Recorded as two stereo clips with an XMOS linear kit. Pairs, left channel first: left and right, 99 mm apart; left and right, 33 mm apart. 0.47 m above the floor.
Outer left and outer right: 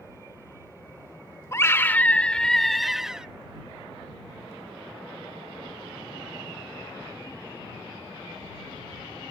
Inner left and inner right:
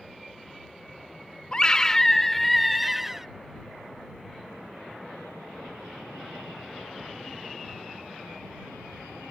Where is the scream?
30° left (ahead or behind); by 3.3 s 5° right (ahead or behind).